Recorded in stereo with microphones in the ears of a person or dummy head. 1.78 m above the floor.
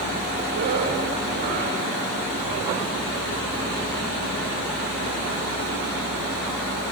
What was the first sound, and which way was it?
A zipper, 60° right (ahead or behind).